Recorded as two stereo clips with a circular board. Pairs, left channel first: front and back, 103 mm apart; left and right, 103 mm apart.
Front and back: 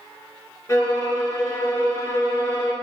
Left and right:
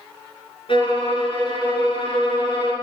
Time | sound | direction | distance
0.7 | a violin | 60° left | 1.8 m